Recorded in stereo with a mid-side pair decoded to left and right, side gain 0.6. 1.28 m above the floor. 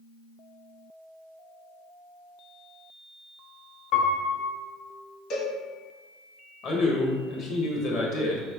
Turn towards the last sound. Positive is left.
turn(degrees=60)